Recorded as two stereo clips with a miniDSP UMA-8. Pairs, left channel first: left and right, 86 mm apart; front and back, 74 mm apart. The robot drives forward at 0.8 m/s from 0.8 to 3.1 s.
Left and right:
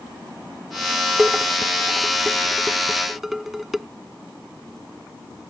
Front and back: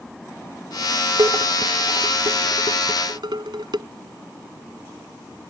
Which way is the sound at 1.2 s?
175° right.